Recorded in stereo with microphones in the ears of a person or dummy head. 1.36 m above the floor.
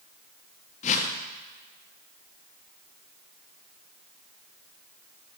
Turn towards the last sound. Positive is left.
turn(degrees=40)  # may be behind; listen again after turning